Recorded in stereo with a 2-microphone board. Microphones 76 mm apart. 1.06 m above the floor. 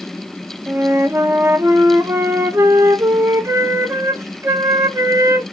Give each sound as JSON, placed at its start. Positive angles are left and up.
{"t": 0.7, "sound": "a flute", "side_deg": -40, "distance_m": 0.8}